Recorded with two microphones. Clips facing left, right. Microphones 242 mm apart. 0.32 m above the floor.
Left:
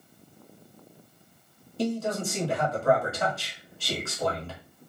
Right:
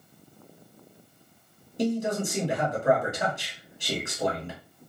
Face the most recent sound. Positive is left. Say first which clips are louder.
# right 2 dB
turn(degrees=-15)  # may be behind; listen again after turning